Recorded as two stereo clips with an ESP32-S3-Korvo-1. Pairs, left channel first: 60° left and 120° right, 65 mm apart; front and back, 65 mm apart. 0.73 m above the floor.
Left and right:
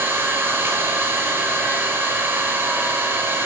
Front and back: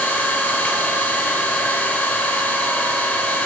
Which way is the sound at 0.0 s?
65° right.